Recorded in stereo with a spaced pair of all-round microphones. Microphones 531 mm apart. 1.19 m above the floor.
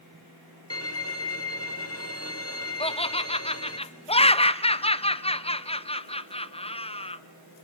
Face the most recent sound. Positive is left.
turn(degrees=10)  # may be behind; listen again after turning